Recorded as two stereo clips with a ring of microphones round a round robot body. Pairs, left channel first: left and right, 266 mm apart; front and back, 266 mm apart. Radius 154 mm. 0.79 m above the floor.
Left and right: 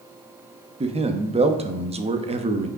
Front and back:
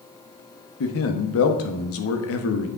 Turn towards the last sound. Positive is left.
turn(degrees=-25)